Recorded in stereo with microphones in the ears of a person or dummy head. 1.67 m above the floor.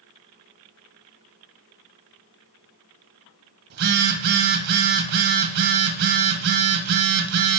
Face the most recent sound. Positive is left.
turn(degrees=-55)  # may be behind; listen again after turning